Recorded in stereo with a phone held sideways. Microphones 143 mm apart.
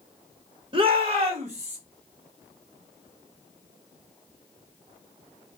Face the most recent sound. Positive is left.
turn(degrees=-50)  # may be behind; listen again after turning